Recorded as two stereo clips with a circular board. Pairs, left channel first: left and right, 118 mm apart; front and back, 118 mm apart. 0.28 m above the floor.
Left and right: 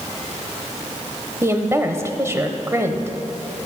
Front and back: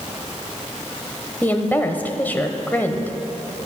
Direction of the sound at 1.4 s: 55° right.